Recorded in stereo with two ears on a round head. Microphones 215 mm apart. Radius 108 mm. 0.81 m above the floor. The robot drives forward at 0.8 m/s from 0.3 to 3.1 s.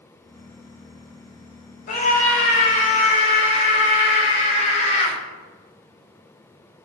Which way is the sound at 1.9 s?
35° left (ahead or behind).